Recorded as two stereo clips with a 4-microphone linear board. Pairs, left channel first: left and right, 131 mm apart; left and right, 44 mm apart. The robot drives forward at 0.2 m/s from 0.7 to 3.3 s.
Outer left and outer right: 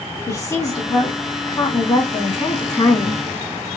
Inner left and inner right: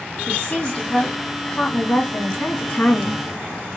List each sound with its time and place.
0.3 s a woman speaking: 25° left (ahead or behind), 1.9 m; by 3.2 s 30° left (ahead or behind), 1.5 m